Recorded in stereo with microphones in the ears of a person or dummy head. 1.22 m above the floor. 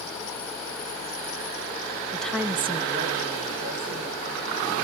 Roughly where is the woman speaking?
Centre.